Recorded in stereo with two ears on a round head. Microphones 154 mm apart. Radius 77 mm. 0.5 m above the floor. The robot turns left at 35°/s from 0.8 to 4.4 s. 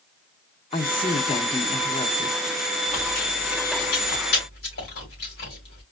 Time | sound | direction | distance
0.7 | a woman speaking | 120° left | 0.9 m
2.9 | chewing | 40° left (ahead or behind) | 3 m